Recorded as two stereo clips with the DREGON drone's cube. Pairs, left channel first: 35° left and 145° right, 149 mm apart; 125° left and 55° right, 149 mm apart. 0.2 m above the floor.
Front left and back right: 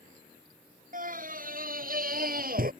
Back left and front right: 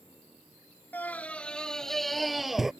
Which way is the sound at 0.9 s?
160° right.